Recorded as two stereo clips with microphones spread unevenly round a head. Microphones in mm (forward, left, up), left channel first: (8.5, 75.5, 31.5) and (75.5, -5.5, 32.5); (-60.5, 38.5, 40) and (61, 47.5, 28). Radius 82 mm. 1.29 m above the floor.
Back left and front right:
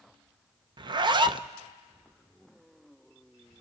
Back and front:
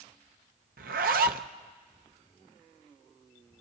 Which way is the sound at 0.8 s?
5° right.